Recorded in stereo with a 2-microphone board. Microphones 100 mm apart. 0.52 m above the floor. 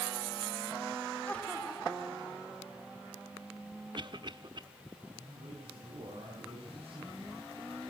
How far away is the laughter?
About 1.7 m.